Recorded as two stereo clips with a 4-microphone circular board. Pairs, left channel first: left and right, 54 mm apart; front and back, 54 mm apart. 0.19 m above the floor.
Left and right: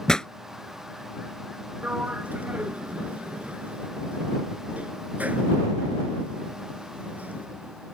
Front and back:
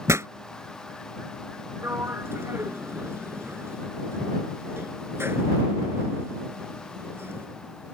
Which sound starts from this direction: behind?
A pop, at 0.1 s.